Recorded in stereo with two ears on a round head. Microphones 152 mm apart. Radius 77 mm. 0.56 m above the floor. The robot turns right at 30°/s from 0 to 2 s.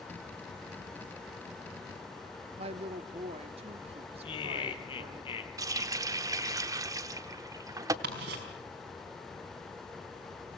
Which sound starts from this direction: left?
Laughter, at 4.2 s.